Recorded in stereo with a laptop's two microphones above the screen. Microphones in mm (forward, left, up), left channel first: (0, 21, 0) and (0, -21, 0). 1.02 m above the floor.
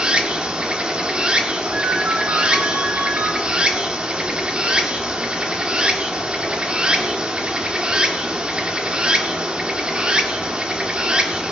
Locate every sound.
0.0 s running water: 20° right (ahead or behind), 0.9 m
1.7 s a ringtone: 55° right (ahead or behind), 1.9 m